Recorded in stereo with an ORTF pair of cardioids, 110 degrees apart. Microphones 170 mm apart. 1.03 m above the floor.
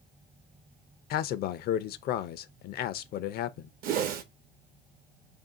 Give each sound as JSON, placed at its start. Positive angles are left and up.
{"t": 1.1, "sound": "a man speaking", "azimuth_deg": 65, "distance_m": 0.5}
{"t": 3.8, "sound": "a whoosh", "azimuth_deg": -60, "distance_m": 0.7}